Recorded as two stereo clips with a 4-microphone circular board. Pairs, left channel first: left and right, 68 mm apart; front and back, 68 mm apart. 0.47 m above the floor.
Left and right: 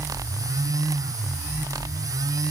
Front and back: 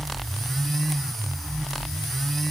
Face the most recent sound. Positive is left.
No sound to turn to.